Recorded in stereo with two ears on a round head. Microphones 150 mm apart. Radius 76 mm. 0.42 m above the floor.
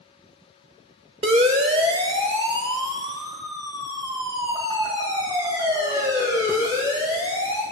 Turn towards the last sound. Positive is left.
turn(degrees=-15)  # may be behind; listen again after turning